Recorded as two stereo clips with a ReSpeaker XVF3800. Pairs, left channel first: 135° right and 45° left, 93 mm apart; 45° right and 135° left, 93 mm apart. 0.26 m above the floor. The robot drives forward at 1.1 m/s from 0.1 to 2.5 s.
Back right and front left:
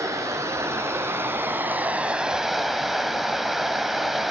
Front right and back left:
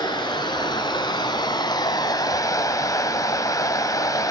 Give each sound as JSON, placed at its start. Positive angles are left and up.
{"t": 0.0, "sound": "running water", "azimuth_deg": -10, "distance_m": 3.5}